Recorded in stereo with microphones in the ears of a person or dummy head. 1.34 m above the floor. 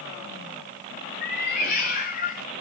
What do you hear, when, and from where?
1.2 s a cat meowing: 55° left (ahead or behind), 2.5 m; by 2.5 s 40° left (ahead or behind), 3 m